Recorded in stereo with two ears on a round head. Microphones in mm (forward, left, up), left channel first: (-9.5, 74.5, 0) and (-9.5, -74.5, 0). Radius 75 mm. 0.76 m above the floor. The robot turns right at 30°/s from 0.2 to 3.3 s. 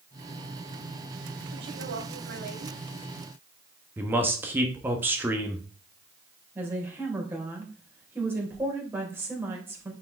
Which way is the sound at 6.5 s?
15° right (ahead or behind).